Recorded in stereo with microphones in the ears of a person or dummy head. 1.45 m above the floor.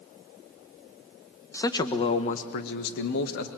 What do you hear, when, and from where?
1.5 s a man speaking: 15° left (ahead or behind), 1.2 m; by 3.5 s 85° left, 1.5 m